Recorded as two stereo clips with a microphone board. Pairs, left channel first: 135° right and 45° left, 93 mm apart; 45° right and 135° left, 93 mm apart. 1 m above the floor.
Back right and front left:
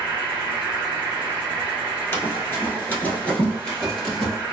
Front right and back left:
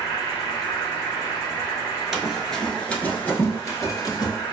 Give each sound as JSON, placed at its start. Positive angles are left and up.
{"t": 0.0, "sound": "an insect", "azimuth_deg": -20, "distance_m": 1.6}
{"t": 2.1, "sound": "running footsteps", "azimuth_deg": -150, "distance_m": 1.0}